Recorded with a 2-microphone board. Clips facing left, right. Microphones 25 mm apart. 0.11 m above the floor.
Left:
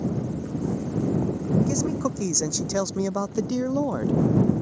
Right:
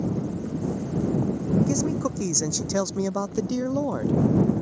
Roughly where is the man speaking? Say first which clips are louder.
Even; centre.